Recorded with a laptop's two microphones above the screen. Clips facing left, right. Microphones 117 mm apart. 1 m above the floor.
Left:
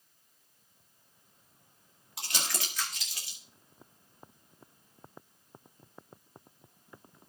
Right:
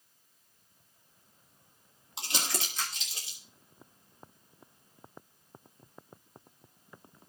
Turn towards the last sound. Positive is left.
turn(degrees=-25)  # may be behind; listen again after turning